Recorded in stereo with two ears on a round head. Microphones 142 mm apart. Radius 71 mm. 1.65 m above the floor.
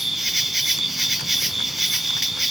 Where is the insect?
Centre (ahead or behind), 0.7 m.